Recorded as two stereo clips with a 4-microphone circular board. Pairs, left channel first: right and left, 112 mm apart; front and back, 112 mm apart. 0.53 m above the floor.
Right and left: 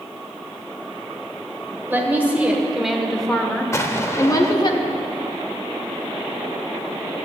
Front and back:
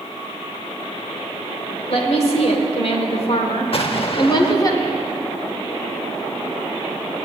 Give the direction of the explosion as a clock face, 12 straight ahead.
1 o'clock.